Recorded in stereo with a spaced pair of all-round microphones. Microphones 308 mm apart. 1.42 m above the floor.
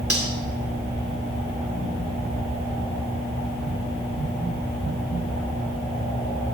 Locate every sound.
0.1 s cutlery clinking: 45° right (ahead or behind), 3 m